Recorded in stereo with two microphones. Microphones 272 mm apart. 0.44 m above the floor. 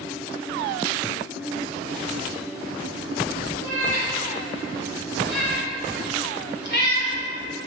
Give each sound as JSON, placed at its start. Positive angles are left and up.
{"t": 3.6, "sound": "a cat meowing", "side_deg": 45, "distance_m": 3.0}